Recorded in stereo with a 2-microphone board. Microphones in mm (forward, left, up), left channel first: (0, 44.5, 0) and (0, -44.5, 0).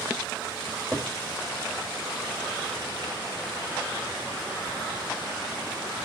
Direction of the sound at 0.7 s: 5° right (ahead or behind).